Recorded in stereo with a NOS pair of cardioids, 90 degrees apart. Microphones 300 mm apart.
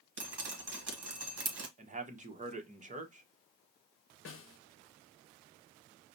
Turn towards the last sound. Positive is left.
turn(degrees=45)